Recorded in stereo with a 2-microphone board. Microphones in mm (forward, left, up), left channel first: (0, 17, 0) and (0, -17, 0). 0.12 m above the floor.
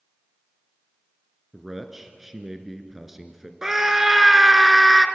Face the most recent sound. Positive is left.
turn(degrees=-15)  # may be behind; listen again after turning